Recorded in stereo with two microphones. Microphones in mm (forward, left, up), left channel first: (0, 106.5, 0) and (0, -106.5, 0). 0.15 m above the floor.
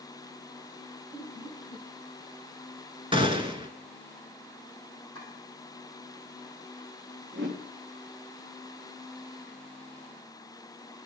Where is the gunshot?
25° right (ahead or behind), 0.5 m.